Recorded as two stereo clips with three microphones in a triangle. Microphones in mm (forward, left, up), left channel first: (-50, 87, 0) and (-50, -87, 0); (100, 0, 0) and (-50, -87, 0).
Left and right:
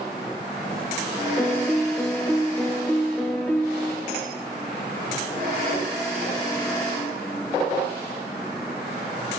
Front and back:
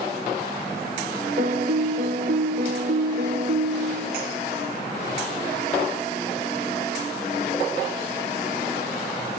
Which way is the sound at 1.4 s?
175° left.